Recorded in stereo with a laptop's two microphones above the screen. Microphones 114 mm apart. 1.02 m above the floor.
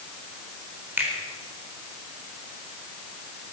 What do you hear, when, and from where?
1.0 s a finger snap: 15° right (ahead or behind), 4 m